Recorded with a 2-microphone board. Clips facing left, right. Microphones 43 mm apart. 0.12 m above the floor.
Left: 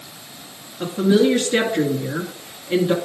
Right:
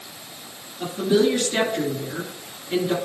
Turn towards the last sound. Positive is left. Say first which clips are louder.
# left 3 dB
turn(degrees=25)  # may be behind; listen again after turning